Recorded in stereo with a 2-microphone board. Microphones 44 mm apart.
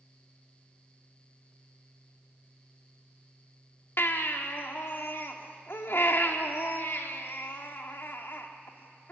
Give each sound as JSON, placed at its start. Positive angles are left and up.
{"t": 4.0, "sound": "a baby crying", "side_deg": 60, "distance_m": 1.5}